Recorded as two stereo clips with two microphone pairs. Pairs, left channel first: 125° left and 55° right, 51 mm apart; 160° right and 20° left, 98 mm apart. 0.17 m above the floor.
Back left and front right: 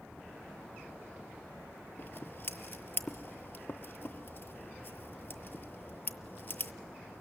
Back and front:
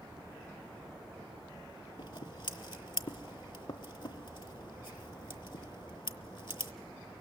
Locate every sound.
2.0 s scissors: 170° left, 0.6 m